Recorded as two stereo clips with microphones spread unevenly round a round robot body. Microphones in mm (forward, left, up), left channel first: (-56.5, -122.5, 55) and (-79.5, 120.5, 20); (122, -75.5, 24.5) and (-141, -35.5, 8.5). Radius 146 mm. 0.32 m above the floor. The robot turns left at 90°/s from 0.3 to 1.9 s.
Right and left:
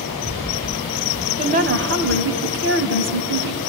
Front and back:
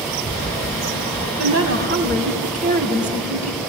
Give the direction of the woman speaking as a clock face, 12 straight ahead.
7 o'clock.